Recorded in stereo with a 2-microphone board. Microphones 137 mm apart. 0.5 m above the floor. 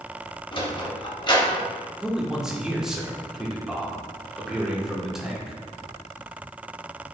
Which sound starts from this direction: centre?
A man speaking, at 2.0 s.